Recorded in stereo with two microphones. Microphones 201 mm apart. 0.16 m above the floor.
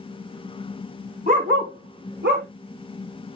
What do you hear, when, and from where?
1.3 s a dog barking: 45° right (ahead or behind), 2.5 m; by 2.5 s 60° right (ahead or behind), 2.5 m